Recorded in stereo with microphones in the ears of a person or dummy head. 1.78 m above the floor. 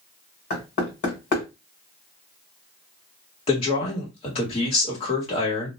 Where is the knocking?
40° left (ahead or behind), 1.4 m.